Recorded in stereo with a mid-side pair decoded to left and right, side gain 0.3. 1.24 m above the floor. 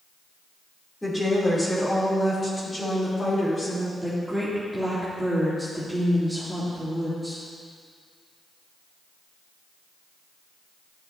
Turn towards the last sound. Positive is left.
turn(degrees=-15)